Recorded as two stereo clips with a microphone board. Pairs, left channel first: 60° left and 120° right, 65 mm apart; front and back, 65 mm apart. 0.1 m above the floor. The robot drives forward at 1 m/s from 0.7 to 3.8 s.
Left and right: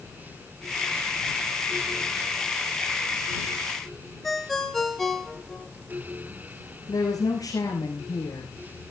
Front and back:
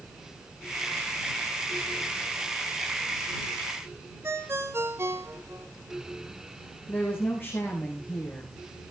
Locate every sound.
4.2 s a ringtone: 145° left, 1.3 m
6.9 s a woman speaking: 55° left, 5 m